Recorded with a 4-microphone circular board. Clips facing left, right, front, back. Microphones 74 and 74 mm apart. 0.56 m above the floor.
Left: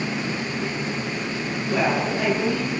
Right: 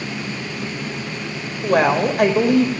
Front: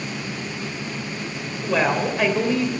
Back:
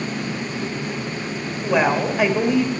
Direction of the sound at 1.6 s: 100° right.